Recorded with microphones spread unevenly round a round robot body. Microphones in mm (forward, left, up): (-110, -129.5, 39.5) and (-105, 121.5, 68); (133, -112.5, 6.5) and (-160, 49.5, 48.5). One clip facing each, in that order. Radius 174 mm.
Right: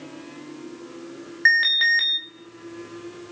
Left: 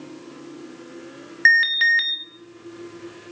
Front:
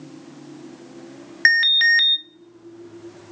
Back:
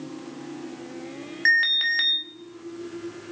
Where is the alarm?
20° left, 1.0 m.